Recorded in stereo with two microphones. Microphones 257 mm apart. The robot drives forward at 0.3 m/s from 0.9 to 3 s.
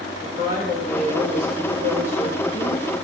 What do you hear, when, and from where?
0.2 s a woman speaking: 35° left (ahead or behind), 2.0 m; by 2.9 s 30° left (ahead or behind), 2 m